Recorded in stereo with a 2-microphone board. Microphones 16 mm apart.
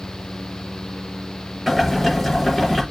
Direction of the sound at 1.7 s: 5° right (ahead or behind).